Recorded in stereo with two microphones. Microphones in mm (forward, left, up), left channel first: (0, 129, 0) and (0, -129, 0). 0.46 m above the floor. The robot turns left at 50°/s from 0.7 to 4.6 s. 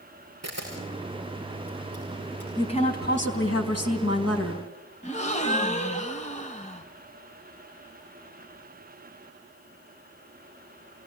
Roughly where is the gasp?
Left.